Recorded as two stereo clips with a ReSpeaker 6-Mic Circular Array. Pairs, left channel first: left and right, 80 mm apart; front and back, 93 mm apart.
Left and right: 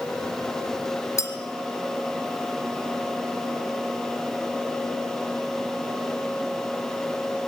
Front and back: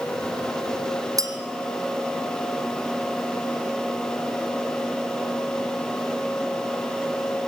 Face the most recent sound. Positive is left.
turn(degrees=135)